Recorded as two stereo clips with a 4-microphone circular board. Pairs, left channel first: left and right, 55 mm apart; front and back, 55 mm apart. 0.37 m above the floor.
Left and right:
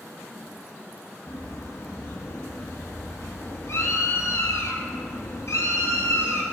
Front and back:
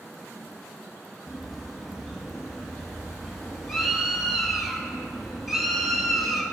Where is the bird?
95° left, 2 m.